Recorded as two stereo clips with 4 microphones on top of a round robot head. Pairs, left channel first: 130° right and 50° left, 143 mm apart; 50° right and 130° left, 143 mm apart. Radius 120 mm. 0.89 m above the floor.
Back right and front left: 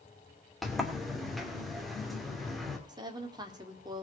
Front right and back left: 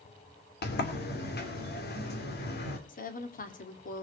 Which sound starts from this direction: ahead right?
A sliding door, at 0.6 s.